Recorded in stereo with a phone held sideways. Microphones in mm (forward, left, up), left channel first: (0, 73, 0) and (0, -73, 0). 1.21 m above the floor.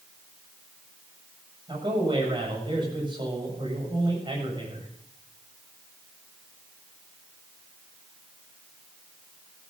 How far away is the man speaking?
About 7.5 m.